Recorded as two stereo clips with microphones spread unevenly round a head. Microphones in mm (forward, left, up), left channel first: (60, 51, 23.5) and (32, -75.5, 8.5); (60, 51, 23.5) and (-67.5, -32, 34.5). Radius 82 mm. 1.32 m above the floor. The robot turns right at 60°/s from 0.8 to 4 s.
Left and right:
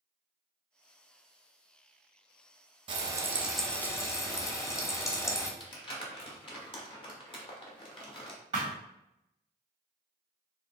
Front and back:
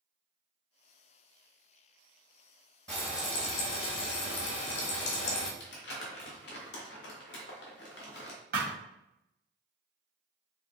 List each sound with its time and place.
2.9 s frying: 50° right, 1.0 m; by 5.5 s 15° left, 1.0 m
5.6 s crumpling: 40° left, 1.3 m
8.5 s a thud: 170° right, 1.9 m